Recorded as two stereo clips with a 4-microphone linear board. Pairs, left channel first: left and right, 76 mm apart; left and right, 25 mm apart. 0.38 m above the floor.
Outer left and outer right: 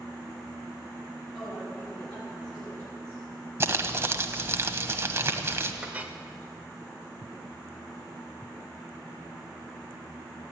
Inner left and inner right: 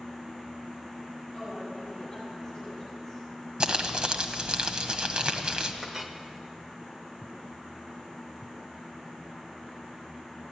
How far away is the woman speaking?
About 4.5 m.